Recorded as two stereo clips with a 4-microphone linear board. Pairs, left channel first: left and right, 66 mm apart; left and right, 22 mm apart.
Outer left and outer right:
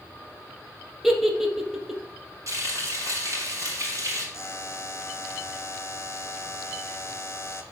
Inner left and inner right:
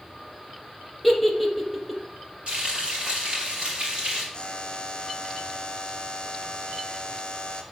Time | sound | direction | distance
1.0 | a giggle | 5° right (ahead or behind) | 0.9 m
2.5 | frying | 50° right (ahead or behind) | 3 m
4.3 | a buzzer | 40° left (ahead or behind) | 0.7 m